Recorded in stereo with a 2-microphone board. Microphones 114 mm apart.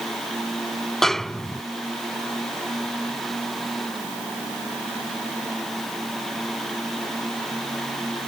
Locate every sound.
1.0 s a snare drum: 5° left (ahead or behind)